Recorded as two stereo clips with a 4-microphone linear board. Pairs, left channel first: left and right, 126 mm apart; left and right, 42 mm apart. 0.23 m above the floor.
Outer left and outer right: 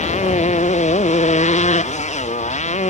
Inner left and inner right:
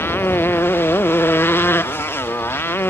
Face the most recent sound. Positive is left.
turn(degrees=60)  # may be behind; listen again after turning